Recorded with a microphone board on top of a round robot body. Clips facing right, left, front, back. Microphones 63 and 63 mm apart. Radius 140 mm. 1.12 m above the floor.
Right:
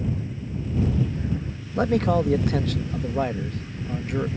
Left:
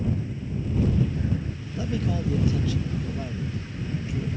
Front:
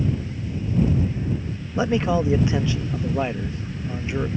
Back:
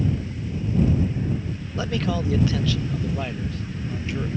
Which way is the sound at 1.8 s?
65° right.